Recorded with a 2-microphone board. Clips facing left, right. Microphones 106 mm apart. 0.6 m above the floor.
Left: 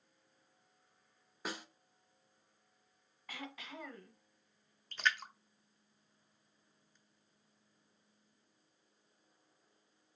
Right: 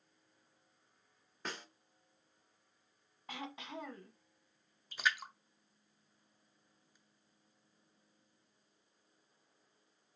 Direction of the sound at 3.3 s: 25° right (ahead or behind).